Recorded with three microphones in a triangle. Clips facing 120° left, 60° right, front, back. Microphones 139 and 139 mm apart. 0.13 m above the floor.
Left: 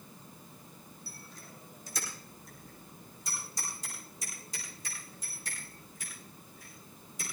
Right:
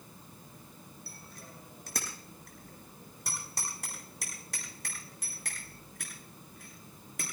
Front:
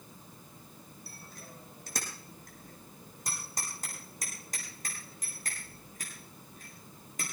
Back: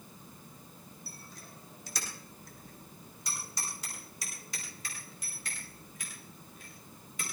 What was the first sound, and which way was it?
A bicycle bell, 35° right.